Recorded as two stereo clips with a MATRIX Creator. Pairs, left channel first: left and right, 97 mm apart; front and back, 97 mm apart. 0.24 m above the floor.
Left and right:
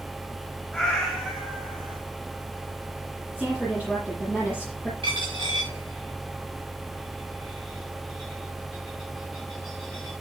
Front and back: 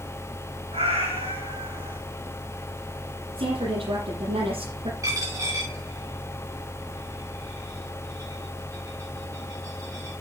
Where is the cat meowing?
Straight behind, 7.5 m; by 2.0 s 175° right, 7 m.